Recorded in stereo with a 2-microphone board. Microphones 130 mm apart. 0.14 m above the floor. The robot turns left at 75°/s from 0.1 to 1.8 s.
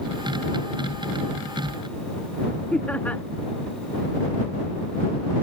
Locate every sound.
2.7 s laughter: 10° left (ahead or behind)